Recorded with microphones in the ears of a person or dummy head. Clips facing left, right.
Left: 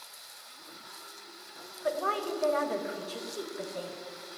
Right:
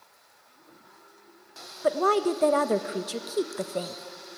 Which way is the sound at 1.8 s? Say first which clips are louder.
Right 8 dB; 65° right (ahead or behind).